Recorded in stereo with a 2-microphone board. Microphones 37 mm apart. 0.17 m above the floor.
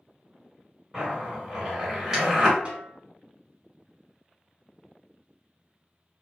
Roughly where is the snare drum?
Right.